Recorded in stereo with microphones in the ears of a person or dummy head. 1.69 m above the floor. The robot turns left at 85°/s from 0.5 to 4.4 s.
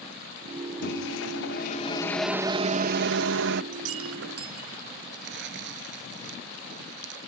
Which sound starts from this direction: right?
Crumpling, at 5.1 s.